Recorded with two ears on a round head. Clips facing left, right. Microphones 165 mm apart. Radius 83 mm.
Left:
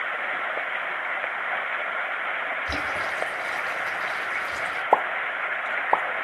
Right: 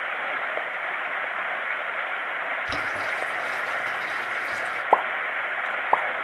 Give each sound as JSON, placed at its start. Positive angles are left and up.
{"t": 2.7, "sound": "boiling", "side_deg": 5, "distance_m": 3.5}
{"t": 4.9, "sound": "a pop", "side_deg": 5, "distance_m": 0.8}